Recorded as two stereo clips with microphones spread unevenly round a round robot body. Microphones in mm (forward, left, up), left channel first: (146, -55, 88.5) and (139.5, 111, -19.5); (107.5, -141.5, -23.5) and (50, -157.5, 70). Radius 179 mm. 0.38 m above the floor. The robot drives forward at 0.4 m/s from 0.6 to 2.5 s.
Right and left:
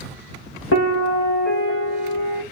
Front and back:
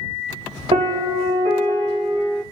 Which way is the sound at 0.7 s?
135° right.